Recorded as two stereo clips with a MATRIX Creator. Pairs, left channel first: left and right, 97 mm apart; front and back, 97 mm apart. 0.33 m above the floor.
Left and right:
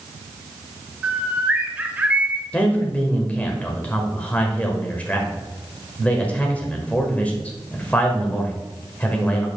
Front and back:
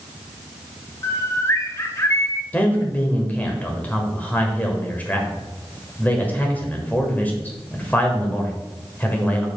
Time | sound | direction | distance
1.0 | a bird | 25° right | 0.7 m
2.5 | a man speaking | 40° left | 1.3 m